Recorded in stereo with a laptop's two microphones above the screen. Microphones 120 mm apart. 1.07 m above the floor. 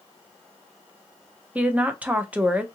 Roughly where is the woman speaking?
Centre.